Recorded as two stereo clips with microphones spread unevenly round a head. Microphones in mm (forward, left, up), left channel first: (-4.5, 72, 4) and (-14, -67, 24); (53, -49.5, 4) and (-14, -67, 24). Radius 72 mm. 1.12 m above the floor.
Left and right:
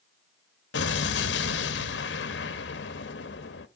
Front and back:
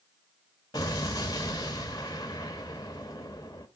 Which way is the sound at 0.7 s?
85° left.